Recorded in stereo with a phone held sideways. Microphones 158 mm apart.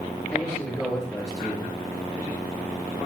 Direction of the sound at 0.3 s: 10° left (ahead or behind).